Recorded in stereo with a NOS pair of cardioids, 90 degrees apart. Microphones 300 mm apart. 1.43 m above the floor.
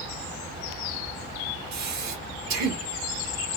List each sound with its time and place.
1.7 s breathing: 65° right, 1.6 m